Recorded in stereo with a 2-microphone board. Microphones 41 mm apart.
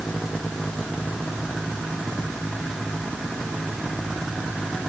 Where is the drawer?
No drawer in this recording.